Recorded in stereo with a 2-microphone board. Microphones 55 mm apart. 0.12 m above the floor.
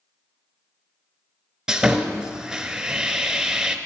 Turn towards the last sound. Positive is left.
turn(degrees=-10)  # may be behind; listen again after turning